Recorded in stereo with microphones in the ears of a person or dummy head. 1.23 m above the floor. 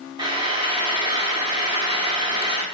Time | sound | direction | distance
0.2 | frying | 25° right (ahead or behind) | 1.5 m